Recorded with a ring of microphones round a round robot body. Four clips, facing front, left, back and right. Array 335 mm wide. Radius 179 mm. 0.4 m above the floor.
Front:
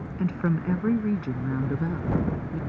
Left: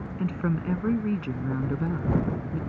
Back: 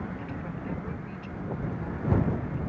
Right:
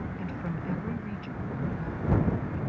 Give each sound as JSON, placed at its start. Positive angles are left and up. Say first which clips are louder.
{"t": 0.2, "sound": "a woman speaking", "louder": "left 6 dB, front 9 dB", "azimuth_deg": 25}